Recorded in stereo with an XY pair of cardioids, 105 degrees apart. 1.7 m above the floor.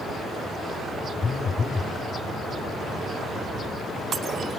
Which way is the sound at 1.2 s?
35° left.